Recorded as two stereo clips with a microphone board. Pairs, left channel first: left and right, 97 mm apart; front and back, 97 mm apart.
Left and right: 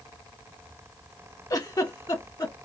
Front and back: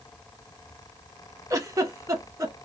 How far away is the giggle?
About 0.6 m.